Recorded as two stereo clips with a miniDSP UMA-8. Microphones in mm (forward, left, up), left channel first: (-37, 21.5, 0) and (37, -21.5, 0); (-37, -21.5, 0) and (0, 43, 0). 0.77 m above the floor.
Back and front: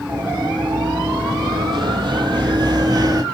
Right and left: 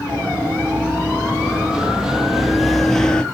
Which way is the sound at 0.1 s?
5° right.